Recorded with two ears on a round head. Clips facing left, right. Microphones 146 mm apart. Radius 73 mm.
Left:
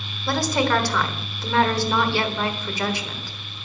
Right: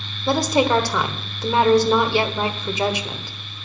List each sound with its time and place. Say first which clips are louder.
0.3 s a woman speaking: right 4 dB; 20° right (ahead or behind), 1.2 m